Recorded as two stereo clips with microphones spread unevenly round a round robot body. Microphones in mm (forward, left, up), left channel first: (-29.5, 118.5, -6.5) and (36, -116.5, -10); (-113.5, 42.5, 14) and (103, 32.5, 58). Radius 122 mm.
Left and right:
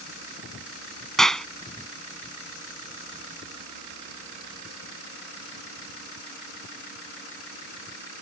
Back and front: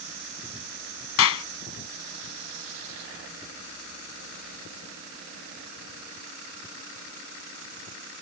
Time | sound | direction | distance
1.2 | a clap | 165° right | ?